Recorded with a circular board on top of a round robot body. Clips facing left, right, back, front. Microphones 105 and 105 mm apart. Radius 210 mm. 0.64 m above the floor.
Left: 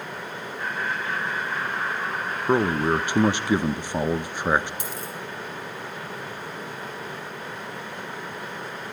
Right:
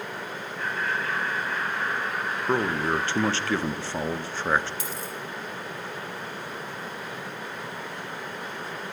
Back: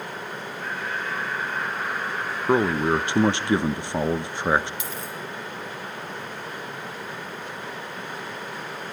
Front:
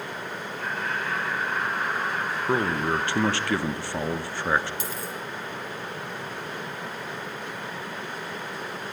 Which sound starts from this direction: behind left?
A man speaking, at 2.5 s.